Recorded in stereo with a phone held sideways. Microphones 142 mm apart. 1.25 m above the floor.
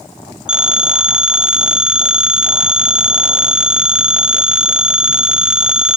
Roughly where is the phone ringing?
Centre.